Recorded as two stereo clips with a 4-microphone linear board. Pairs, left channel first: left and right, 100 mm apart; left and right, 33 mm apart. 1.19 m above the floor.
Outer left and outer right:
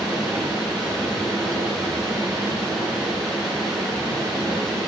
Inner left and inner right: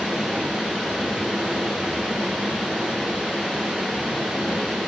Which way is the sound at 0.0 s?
Centre (ahead or behind).